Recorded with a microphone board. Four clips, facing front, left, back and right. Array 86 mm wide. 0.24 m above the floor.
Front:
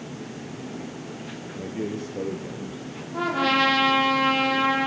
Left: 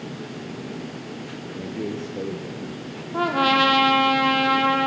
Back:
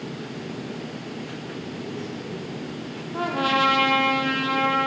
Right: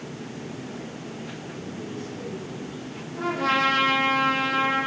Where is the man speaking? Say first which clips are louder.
Left 7 dB, front 5 dB; 50° left, 4 m; by 3.0 s 40° left, 4 m.